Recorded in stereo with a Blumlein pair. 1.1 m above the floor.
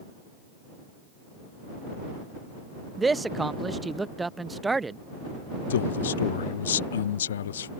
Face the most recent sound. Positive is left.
turn(degrees=65)